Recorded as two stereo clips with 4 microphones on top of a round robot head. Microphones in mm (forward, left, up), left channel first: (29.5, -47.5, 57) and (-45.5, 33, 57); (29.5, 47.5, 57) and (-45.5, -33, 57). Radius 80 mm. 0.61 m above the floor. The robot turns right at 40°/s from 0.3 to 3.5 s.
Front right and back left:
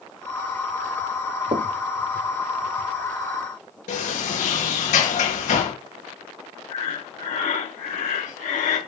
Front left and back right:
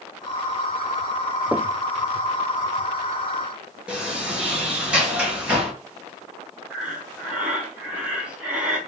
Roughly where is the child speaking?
I don't hear a child speaking.